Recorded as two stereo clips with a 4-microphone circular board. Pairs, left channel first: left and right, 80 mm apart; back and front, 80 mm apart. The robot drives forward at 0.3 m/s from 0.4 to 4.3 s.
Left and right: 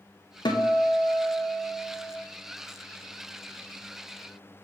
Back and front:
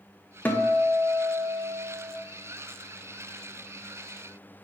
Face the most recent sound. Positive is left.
turn(degrees=155)